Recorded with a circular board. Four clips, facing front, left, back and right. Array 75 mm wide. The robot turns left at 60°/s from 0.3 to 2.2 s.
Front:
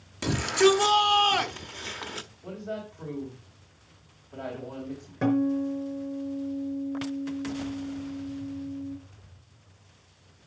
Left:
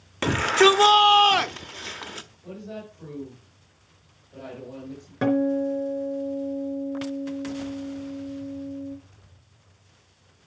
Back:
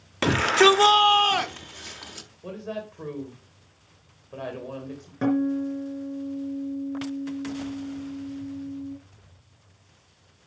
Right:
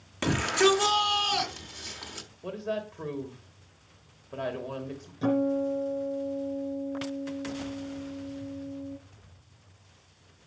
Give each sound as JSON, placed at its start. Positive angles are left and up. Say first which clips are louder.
{"t": 0.2, "sound": "a shout", "louder": "left 5 dB, back 4 dB", "azimuth_deg": 155, "distance_m": 0.8}
{"t": 2.4, "sound": "a woman speaking", "louder": "right 6 dB, back 3 dB", "azimuth_deg": -115, "distance_m": 2.5}
{"t": 5.2, "sound": "a guitar", "louder": "left 4 dB, back 1 dB", "azimuth_deg": 95, "distance_m": 3.5}